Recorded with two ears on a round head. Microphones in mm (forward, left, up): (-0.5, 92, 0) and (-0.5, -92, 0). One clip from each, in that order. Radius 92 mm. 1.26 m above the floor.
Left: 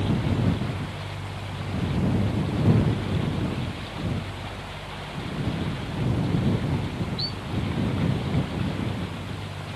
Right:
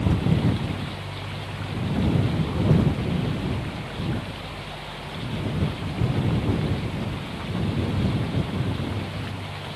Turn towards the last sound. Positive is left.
No sound to turn to.